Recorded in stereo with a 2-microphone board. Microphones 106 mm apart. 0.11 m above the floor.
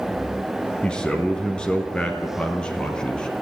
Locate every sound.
0.8 s a man speaking: 10° left (ahead or behind), 2 m